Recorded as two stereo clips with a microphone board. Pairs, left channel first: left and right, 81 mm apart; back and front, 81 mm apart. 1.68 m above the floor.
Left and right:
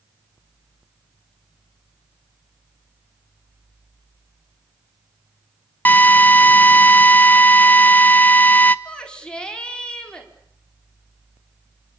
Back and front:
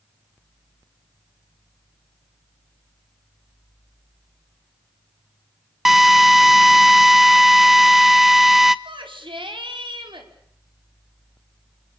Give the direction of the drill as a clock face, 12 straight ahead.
9 o'clock.